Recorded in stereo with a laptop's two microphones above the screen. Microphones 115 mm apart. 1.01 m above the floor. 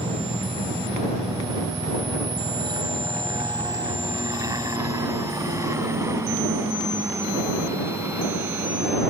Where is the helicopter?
55° right (ahead or behind); by 9.1 s 15° right (ahead or behind).